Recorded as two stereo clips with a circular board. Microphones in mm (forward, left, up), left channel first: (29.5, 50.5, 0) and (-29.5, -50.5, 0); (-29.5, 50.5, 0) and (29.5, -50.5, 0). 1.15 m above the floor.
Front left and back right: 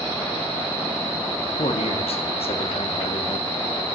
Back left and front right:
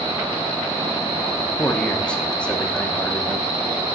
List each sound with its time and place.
1.6 s a man speaking: 40° left, 1.2 m